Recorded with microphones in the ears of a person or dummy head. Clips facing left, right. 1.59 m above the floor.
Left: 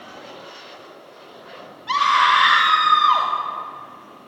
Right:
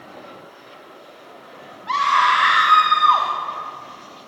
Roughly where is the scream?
Centre.